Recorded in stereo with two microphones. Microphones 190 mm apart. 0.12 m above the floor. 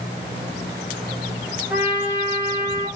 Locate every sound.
1.7 s a trumpet: 10° right (ahead or behind), 1.8 m